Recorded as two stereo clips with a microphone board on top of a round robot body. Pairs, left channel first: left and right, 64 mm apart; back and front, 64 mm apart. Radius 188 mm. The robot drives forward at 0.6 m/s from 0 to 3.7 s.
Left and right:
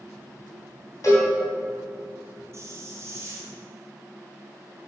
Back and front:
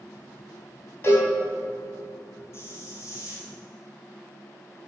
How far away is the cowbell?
About 3.5 m.